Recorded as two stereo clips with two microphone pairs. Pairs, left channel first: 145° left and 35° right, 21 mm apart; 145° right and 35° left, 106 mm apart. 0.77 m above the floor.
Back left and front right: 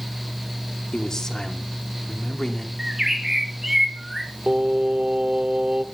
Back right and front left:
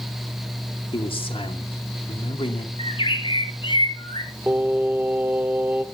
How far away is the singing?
About 0.7 m.